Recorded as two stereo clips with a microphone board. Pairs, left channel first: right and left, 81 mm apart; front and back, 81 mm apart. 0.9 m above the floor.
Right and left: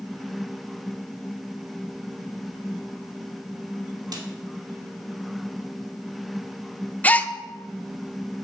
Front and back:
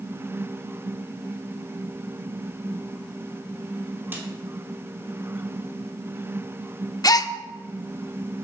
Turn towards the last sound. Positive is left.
turn(degrees=-25)